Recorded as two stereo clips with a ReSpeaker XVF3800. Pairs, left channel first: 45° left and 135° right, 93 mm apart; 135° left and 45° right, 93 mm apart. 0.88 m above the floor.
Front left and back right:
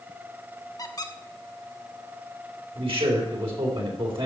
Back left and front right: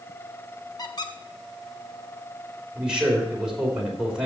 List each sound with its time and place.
0.8 s a squeak: 90° left, 0.9 m
2.8 s a man speaking: 125° right, 3.5 m